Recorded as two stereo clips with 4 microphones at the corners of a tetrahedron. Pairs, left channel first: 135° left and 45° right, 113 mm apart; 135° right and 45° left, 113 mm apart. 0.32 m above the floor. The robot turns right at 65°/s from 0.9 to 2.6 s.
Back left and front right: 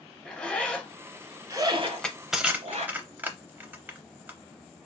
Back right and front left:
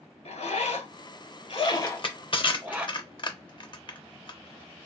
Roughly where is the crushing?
Behind.